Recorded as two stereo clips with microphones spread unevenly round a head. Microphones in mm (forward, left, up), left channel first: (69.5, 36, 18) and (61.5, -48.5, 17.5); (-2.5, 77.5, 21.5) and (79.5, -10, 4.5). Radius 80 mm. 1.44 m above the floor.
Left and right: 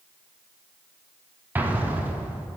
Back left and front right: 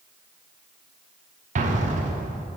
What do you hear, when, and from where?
1.6 s an explosion: 25° right, 0.8 m